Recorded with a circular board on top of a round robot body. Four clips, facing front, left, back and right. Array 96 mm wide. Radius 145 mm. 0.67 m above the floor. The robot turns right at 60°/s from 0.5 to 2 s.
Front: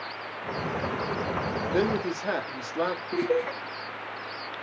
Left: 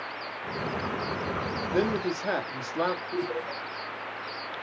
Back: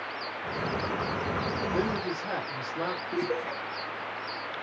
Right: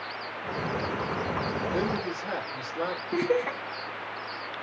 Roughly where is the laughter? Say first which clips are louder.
Right 5 dB, front 6 dB; right.